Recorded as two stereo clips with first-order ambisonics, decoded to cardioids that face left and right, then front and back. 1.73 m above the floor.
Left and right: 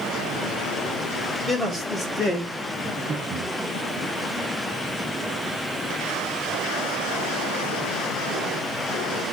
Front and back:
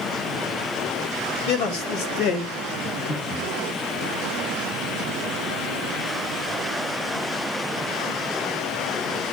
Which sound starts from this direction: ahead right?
Breathing, at 2.9 s.